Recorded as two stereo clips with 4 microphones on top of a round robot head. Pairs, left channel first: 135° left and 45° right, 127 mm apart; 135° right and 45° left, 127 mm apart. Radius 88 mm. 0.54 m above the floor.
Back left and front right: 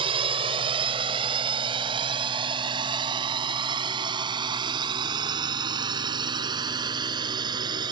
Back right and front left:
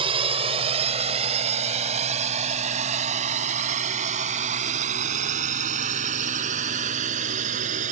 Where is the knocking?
No knocking in this recording.